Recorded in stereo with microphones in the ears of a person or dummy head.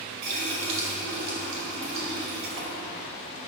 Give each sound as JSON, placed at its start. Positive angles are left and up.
{"t": 0.2, "sound": "a running tap", "side_deg": -55, "distance_m": 2.5}